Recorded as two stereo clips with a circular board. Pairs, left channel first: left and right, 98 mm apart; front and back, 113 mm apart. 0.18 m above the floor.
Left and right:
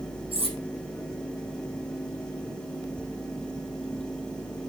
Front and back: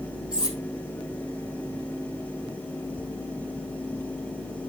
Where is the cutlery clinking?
100° right, 4 m.